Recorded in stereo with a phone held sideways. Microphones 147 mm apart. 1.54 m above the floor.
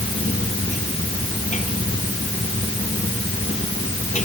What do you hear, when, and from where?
0.0 s a machine running: 55° left (ahead or behind)